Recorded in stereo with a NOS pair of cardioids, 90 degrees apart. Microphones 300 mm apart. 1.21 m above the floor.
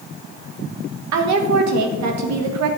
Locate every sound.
1.1 s a woman speaking: 70° right, 1.7 m